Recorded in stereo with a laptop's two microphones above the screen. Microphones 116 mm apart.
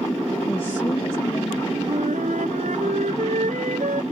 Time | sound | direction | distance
0.5 | a woman speaking | 15° left (ahead or behind) | ?
1.9 | a flute | 80° right | ?